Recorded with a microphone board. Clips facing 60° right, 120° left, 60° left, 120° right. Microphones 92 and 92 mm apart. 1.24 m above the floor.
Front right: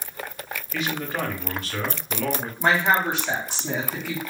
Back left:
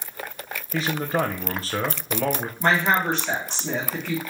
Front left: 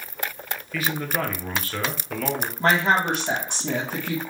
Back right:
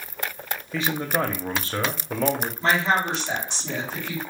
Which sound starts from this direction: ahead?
A woman speaking, at 2.6 s.